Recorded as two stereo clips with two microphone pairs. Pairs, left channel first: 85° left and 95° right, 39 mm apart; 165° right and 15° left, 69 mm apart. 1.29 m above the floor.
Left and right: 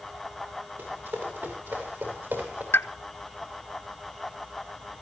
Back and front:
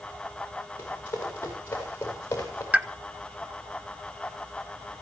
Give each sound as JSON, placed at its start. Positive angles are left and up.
{"t": 0.8, "sound": "running footsteps", "azimuth_deg": -105, "distance_m": 9.0}
{"t": 2.7, "sound": "a pop", "azimuth_deg": 85, "distance_m": 1.0}